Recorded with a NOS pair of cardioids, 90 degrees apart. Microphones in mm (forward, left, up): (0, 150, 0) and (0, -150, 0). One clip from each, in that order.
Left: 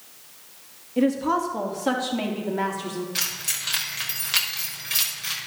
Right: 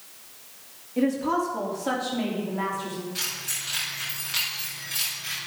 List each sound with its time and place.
1.0 s a woman speaking: 20° left, 3.5 m; by 3.0 s 50° left, 5 m
3.1 s keys jangling: 60° left, 5 m